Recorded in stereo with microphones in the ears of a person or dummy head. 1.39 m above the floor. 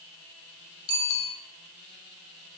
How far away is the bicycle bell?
About 5 m.